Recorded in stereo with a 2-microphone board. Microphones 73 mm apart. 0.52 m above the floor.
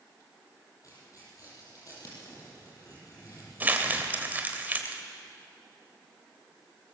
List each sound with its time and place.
0.8 s tearing paper: 50° left (ahead or behind), 8 m
3.6 s crumpling: 25° right (ahead or behind), 2 m